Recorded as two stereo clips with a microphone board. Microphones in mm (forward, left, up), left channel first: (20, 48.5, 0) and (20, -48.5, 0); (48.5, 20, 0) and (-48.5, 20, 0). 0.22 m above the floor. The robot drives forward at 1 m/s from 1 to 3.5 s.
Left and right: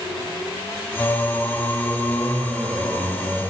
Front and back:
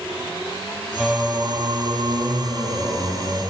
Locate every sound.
1.0 s singing: 90° left, 0.7 m; by 3.4 s 170° left, 2.5 m